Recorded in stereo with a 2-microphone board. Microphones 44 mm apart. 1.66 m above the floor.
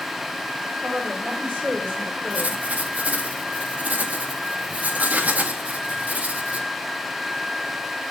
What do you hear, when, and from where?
0.8 s a woman speaking: 35° right (ahead or behind), 6.5 m; by 2.6 s 30° right (ahead or behind), 5 m
2.3 s writing: 35° right (ahead or behind), 1.8 m